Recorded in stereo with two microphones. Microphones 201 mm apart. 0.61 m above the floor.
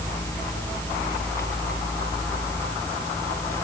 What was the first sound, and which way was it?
Only background noise.